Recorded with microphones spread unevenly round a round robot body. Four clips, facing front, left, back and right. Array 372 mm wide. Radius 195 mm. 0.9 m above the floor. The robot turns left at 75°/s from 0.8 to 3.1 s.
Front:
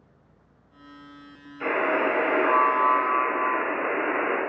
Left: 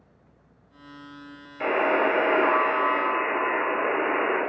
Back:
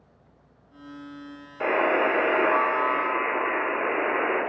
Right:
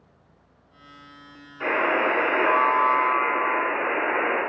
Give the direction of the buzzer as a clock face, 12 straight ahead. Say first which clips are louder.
Left 1 dB, back 2 dB; 7 o'clock.